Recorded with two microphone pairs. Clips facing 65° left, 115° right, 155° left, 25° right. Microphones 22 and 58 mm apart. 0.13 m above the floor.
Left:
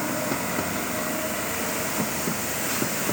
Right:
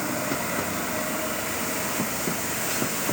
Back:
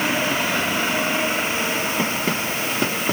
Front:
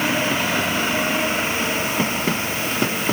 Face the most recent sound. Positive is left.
No sound to turn to.